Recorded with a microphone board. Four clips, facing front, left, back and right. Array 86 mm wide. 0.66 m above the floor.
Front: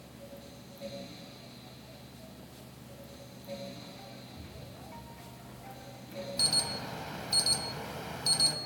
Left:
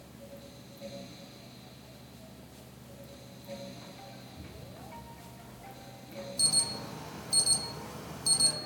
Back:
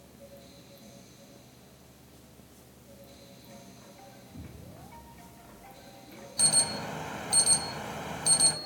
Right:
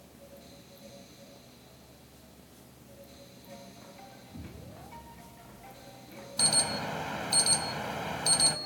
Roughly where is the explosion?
Behind right.